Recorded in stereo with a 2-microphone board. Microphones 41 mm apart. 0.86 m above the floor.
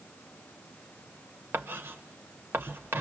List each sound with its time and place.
1.5 s writing: 70° right (ahead or behind), 1.1 m